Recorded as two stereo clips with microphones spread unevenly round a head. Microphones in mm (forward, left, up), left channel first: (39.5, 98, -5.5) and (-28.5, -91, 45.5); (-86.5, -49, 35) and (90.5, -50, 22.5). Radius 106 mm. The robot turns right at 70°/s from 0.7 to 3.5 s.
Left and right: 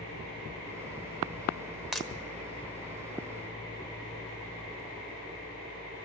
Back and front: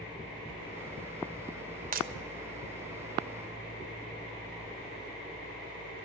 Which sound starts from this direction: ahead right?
Breaking glass, at 1.9 s.